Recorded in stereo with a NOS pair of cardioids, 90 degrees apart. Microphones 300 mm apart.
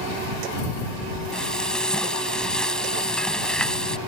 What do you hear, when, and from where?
1.3 s frying: 5° left